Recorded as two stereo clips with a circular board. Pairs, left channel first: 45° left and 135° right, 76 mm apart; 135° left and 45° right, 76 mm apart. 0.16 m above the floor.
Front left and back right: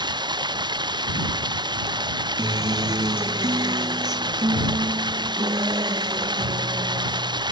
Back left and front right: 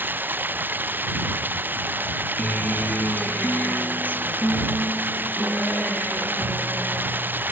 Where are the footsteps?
I don't hear footsteps.